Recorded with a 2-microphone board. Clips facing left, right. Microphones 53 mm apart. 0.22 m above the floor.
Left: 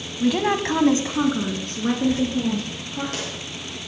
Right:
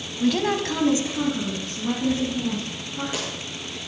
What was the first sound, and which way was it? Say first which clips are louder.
A woman speaking: left 2 dB; 5° left (ahead or behind).